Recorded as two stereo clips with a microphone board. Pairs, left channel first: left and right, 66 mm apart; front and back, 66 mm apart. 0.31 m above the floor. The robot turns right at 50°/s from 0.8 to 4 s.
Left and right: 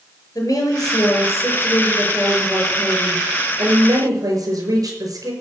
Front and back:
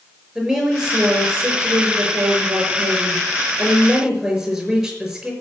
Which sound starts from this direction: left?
A woman speaking, at 0.3 s.